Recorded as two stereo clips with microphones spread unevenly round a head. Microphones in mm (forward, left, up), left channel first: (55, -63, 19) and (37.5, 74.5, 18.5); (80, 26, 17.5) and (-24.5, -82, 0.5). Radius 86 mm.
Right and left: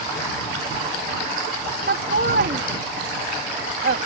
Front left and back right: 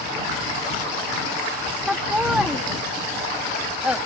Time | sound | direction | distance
1.9 | laughter | 140° left | ?